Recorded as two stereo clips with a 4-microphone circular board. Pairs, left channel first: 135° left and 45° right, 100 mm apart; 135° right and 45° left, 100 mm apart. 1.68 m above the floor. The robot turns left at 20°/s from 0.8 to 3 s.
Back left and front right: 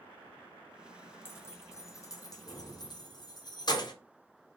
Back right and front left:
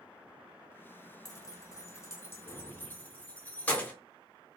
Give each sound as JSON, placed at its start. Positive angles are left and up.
{"t": 1.2, "sound": "keys jangling", "azimuth_deg": -170, "distance_m": 0.7}